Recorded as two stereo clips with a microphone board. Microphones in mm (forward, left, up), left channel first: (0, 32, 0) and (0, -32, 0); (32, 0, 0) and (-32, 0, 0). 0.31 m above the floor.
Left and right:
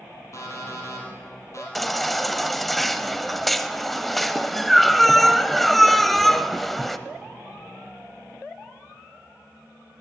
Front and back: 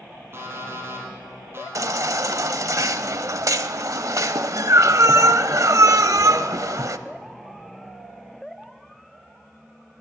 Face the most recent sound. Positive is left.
turn(degrees=180)